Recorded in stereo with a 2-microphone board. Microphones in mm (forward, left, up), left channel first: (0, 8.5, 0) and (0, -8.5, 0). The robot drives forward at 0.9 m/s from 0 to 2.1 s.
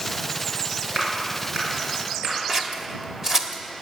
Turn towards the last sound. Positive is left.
turn(degrees=-30)  # may be behind; listen again after turning